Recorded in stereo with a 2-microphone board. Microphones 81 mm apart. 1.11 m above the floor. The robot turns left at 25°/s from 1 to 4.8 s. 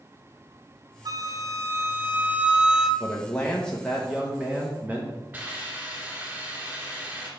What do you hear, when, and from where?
1.1 s a flute: 130° right, 0.7 m; by 2.9 s 175° right, 0.7 m
3.0 s a man speaking: 25° left, 0.9 m; by 5.1 s 20° right, 0.9 m
5.3 s a hiss: 25° right (ahead or behind), 2.5 m